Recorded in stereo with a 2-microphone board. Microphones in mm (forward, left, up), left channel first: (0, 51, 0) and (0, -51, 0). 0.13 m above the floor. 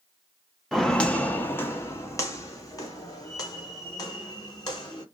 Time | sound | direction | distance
0.7 | footsteps | centre (ahead or behind) | 0.6 m